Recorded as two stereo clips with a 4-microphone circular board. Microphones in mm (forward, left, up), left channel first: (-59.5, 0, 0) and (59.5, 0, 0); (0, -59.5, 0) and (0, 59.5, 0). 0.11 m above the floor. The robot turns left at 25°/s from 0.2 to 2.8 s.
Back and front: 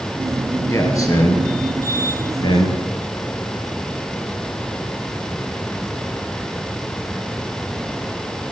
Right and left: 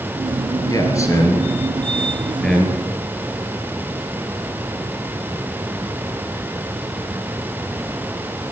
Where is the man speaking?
130° right, 2 m; by 2.8 s 175° left, 2 m.